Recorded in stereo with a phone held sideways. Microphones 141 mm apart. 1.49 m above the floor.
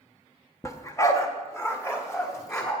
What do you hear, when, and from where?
0.6 s a dog barking: 20° left (ahead or behind), 0.9 m